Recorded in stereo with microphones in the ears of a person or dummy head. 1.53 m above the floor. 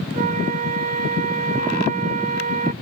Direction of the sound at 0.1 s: 45° right (ahead or behind).